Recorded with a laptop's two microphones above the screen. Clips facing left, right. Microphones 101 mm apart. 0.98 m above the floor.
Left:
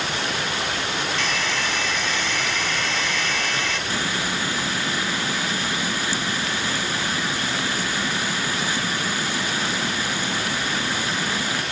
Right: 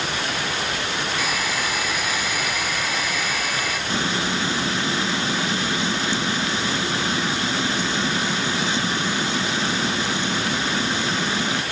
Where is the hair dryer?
10° right (ahead or behind).